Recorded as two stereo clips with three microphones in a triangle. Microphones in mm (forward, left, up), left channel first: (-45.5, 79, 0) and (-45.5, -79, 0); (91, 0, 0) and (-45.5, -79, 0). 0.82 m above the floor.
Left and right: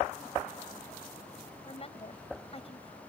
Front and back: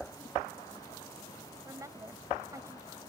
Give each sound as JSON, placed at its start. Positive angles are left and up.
{"t": 1.6, "sound": "a woman speaking", "azimuth_deg": 140}